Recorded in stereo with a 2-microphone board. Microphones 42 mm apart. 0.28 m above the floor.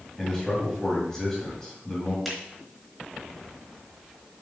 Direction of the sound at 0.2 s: 10° left (ahead or behind).